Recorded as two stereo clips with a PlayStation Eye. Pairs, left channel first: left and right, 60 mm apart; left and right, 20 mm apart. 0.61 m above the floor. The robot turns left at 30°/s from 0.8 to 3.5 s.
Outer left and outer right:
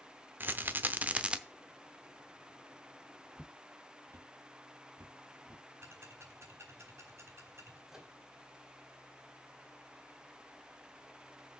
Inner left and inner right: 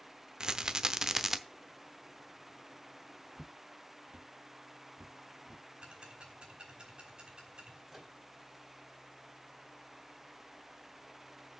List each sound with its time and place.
0.4 s a rattle: 35° right (ahead or behind), 0.7 m; by 1.4 s 15° right (ahead or behind), 0.7 m
3.4 s footsteps: 5° right (ahead or behind), 0.6 m; by 5.6 s 80° right, 3 m
5.8 s ticking: 50° right (ahead or behind), 3.5 m
7.9 s a microwave: 10° right (ahead or behind), 1.8 m